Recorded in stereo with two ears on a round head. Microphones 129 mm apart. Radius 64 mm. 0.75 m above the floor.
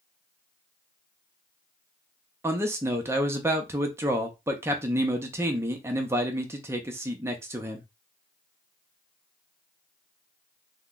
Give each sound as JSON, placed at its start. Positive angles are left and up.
{"t": 2.4, "sound": "a man speaking", "side_deg": -20, "distance_m": 0.6}